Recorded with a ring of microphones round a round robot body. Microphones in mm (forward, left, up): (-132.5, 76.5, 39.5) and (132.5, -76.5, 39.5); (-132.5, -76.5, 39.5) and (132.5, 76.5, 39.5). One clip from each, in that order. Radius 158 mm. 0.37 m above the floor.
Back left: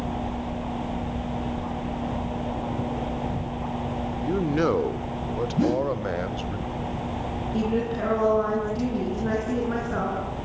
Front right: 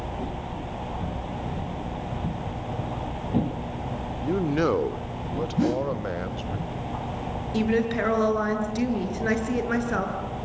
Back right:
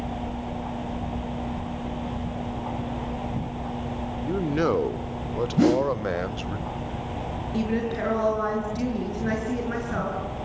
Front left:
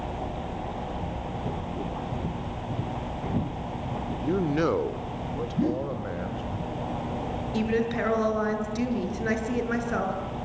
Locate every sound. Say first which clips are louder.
4.2 s a man speaking: even, back right 1 dB; 35° left, 0.8 m; by 6.6 s 130° right, 1.9 m
5.6 s a whoosh: back left 1 dB, back right 8 dB; 115° right, 0.6 m
7.5 s a woman speaking: front right 3 dB, front left 1 dB; 35° right, 6.5 m